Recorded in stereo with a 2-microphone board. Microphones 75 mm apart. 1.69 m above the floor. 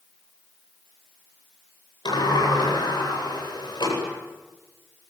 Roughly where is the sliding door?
Left.